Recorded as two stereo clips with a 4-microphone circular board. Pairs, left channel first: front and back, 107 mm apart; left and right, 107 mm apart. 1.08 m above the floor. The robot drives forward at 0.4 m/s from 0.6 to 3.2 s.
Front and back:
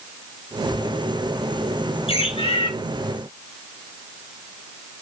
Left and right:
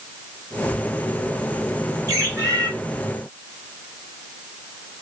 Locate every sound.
2.1 s a bird: 30° right, 5.5 m; by 2.7 s 35° right, 5 m